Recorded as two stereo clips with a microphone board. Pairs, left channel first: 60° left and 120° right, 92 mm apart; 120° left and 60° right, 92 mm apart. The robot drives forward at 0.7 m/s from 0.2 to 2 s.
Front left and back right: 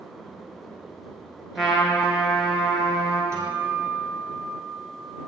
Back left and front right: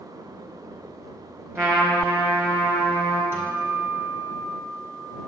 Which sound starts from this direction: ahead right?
A trumpet, at 1.6 s.